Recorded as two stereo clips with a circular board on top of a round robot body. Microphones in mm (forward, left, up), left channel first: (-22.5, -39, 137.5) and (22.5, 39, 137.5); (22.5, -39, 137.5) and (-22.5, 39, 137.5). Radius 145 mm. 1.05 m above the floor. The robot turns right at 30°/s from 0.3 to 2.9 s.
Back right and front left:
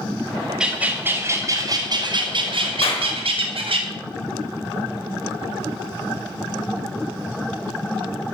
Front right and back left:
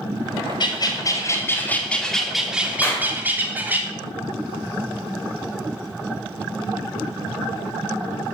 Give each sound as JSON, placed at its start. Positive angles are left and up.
{"t": 0.6, "sound": "a bird", "azimuth_deg": -20, "distance_m": 3.0}
{"t": 2.8, "sound": "a clap", "azimuth_deg": -130, "distance_m": 4.5}